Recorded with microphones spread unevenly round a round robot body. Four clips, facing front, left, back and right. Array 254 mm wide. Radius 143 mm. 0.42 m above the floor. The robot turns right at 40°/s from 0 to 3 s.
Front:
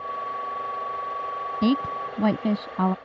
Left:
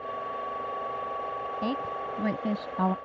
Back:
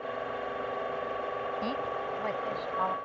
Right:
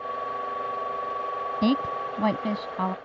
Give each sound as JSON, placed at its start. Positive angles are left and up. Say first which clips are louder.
{"t": 1.6, "sound": "a woman speaking", "louder": "right 9 dB, front 9 dB", "azimuth_deg": -35}